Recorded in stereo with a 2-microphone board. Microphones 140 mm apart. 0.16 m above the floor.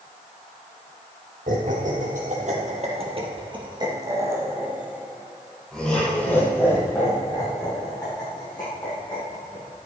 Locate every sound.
1.5 s laughter: 65° right (ahead or behind), 5 m; by 9.8 s 35° left (ahead or behind), 8.5 m